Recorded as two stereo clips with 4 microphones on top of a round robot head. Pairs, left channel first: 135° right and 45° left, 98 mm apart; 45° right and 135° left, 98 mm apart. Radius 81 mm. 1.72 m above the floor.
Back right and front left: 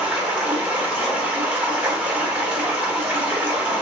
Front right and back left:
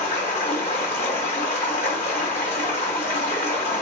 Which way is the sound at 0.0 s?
25° right.